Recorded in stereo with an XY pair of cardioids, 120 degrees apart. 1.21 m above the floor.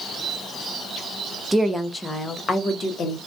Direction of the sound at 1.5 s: 15° right.